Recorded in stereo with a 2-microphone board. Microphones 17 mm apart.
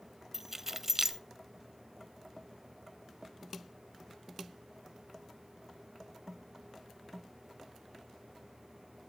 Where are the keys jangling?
20° right (ahead or behind), 0.6 m.